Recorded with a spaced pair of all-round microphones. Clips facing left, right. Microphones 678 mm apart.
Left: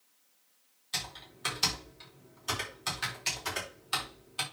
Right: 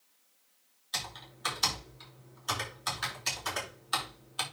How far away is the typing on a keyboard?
About 4 m.